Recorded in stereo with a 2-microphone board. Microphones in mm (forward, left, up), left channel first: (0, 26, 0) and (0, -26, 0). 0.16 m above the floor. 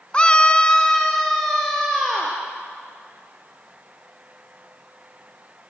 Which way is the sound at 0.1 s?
20° left (ahead or behind).